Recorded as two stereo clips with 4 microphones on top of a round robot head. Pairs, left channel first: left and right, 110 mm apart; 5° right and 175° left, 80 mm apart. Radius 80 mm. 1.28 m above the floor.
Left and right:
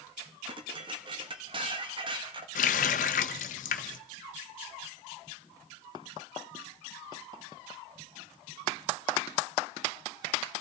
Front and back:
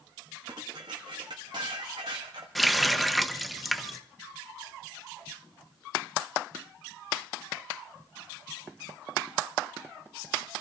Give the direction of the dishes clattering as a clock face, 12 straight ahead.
4 o'clock.